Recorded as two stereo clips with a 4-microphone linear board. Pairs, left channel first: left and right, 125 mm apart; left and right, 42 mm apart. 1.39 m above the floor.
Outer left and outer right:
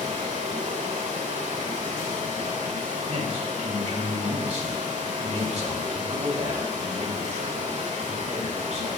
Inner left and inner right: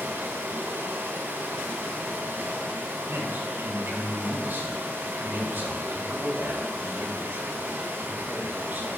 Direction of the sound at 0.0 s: 80° right.